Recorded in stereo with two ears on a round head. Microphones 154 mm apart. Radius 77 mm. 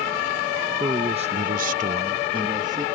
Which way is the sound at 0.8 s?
20° right (ahead or behind).